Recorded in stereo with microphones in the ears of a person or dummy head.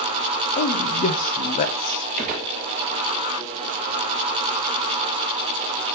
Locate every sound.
0.6 s a man speaking: 40° left (ahead or behind), 0.5 m
2.2 s a gunshot: 40° right (ahead or behind), 0.7 m